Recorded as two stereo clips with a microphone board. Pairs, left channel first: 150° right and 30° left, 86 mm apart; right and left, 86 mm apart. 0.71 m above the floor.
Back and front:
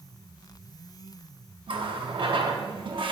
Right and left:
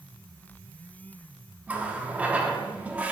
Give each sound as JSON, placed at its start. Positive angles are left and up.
{"t": 1.7, "sound": "a running tap", "azimuth_deg": 15, "distance_m": 0.7}